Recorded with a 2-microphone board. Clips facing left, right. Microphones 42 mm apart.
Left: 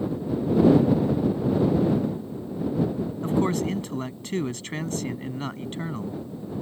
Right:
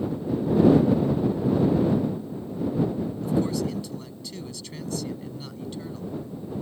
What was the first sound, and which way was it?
A man speaking, 50° left (ahead or behind).